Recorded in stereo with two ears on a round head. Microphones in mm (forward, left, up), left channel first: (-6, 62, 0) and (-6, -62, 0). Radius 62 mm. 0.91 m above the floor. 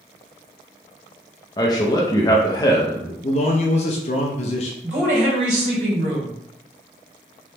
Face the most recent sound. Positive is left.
turn(degrees=-55)  # may be behind; listen again after turning